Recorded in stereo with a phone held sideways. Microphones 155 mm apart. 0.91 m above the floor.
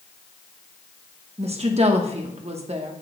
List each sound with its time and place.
1.4 s a woman speaking: 45° right (ahead or behind), 1.0 m